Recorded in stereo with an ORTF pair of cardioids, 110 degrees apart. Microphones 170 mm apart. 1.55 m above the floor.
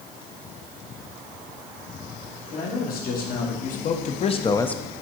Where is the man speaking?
60° left, 3 m; by 4.8 s 5° right, 0.6 m.